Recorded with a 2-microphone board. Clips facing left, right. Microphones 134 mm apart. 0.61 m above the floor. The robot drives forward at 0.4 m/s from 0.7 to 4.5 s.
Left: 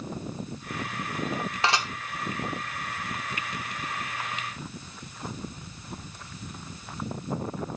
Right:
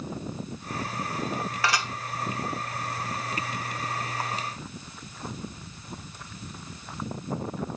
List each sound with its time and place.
1.6 s dishes clattering: 25° left (ahead or behind), 1.0 m